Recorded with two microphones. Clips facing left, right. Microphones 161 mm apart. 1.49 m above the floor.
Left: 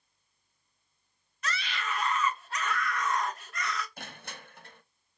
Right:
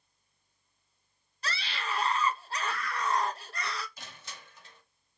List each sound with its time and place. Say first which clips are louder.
1.4 s a scream: left 1 dB; 30° right (ahead or behind), 1.6 m
4.0 s crushing: left 4 dB; 55° left (ahead or behind), 1.1 m